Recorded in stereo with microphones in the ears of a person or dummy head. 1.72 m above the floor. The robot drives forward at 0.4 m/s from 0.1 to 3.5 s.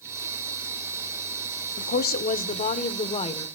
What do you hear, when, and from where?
1.8 s a woman speaking: 55° left (ahead or behind), 0.9 m; by 3.5 s 30° left (ahead or behind), 1.4 m